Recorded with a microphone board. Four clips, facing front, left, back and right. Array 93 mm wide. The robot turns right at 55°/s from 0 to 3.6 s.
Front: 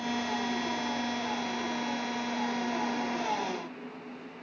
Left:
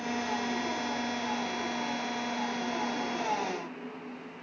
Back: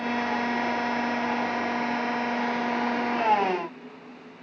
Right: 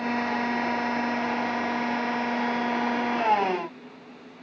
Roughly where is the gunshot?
No gunshot in this recording.